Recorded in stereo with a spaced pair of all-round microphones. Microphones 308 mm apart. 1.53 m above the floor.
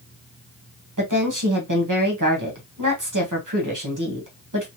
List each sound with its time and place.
1.0 s a woman speaking: 80° right, 1.3 m